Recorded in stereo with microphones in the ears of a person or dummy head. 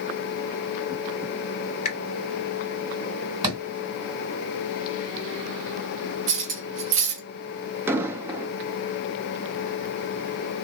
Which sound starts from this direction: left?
A finger snap, at 1.9 s.